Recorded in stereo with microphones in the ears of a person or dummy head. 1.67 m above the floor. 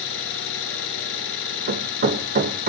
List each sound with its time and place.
0.0 s an engine running: 75° left (ahead or behind), 5 m
1.7 s hammering: 45° right (ahead or behind), 1.1 m